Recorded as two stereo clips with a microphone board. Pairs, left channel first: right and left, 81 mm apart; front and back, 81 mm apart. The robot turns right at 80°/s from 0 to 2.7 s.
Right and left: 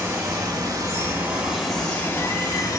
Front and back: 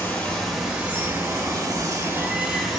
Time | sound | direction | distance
0.0 | running water | 45° left | 0.8 m